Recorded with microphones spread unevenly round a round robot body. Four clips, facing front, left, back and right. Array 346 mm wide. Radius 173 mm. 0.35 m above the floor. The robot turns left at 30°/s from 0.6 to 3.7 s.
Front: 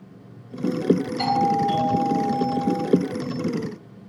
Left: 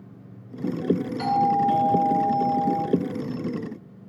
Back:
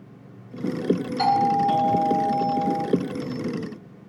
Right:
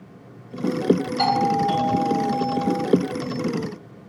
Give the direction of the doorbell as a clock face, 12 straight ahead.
5 o'clock.